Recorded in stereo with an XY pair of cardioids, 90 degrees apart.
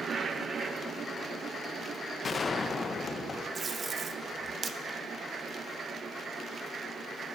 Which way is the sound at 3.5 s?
40° right.